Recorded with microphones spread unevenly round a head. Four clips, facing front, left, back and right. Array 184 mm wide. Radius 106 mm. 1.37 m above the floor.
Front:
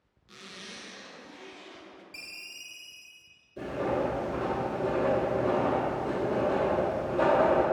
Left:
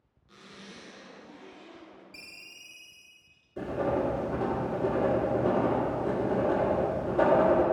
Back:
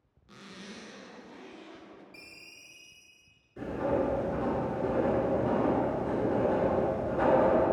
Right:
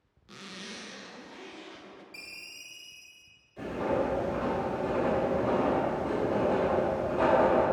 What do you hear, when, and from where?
0.3 s a zipper: 95° right, 0.9 m
2.1 s a ringtone: 30° left, 1.2 m
3.6 s writing: 105° left, 1.5 m